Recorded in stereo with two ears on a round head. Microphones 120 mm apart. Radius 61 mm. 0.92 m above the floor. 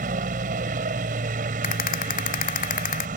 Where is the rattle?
60° left (ahead or behind).